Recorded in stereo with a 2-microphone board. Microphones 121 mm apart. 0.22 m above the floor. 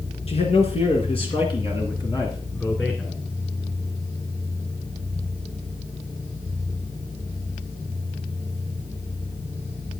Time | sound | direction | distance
0.3 | a man speaking | 60° left (ahead or behind) | 3 m